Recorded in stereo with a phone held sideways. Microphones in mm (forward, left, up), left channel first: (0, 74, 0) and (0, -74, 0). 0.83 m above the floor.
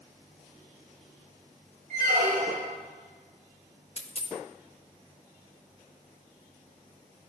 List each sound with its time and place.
1.9 s a squeak: 75° right (ahead or behind), 1.8 m
4.0 s a dropped coin: 45° left (ahead or behind), 0.8 m